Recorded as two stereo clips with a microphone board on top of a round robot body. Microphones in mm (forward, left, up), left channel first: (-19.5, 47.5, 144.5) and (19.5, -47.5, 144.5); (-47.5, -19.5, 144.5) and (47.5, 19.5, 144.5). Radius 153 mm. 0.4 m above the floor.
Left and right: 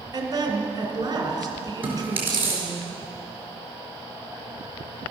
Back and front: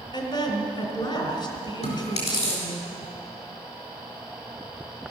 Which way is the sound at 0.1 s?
115° right.